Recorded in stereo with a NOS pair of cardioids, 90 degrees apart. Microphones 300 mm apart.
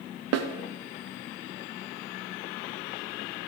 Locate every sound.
0.3 s a snare drum: 60° right, 0.9 m